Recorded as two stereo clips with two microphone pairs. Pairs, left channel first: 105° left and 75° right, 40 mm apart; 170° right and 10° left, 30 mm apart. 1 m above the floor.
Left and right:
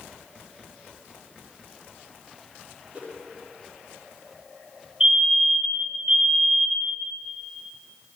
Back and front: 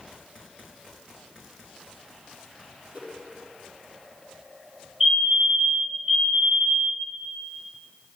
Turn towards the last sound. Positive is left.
turn(degrees=-45)